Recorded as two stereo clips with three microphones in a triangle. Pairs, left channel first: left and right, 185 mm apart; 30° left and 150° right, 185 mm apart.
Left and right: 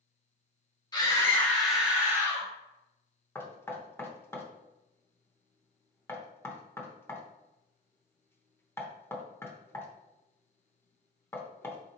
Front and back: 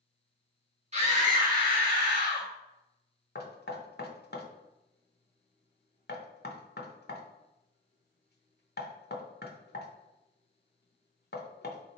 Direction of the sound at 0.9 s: 160° left.